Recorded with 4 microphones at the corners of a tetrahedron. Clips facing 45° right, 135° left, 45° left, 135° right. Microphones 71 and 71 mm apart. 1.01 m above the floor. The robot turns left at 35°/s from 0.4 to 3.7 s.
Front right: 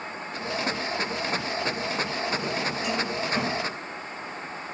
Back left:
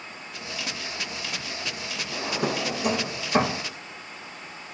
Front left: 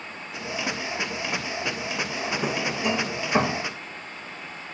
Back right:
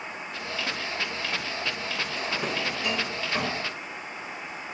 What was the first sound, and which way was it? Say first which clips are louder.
A drawer: back left 1 dB, front left 3 dB; 135° left.